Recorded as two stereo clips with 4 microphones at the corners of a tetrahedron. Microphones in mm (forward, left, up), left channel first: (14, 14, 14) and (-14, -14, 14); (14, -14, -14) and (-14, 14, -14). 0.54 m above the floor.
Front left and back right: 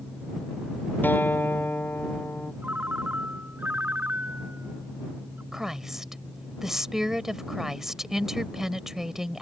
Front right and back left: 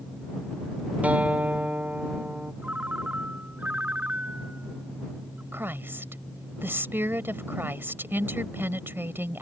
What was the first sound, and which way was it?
A guitar, 80° left.